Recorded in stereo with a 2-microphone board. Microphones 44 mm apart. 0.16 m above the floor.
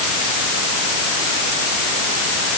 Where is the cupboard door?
I don't hear a cupboard door.